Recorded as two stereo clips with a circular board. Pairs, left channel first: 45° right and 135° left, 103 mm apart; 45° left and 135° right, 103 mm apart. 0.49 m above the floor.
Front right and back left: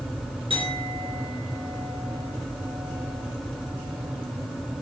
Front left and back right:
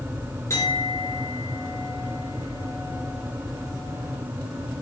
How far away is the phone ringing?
I don't hear a phone ringing.